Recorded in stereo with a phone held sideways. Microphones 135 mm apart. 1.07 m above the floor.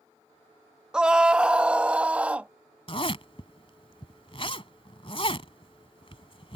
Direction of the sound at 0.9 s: 5° right (ahead or behind).